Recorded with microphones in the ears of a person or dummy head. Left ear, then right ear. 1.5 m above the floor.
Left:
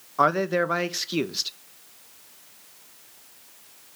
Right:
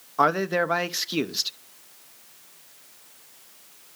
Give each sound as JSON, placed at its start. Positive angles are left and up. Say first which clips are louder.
{"t": 0.2, "sound": "a man speaking", "louder": "even", "side_deg": -5, "distance_m": 0.8}